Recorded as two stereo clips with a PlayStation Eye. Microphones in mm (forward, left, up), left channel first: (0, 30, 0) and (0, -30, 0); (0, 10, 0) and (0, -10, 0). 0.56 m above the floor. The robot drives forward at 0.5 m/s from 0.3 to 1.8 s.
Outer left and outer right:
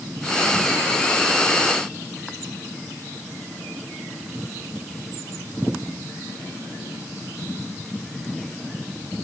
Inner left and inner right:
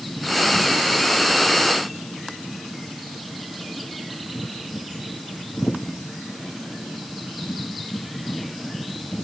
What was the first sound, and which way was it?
Only background noise.